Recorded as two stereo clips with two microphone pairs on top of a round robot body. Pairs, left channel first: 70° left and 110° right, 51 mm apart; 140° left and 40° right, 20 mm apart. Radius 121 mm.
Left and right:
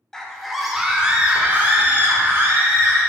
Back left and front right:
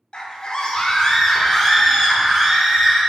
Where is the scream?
160° left, 1.7 m; by 3.0 s 120° right, 2.5 m.